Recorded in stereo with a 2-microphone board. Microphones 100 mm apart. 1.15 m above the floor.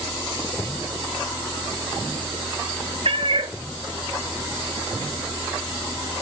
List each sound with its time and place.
3.0 s a cat meowing: 60° right (ahead or behind), 1.0 m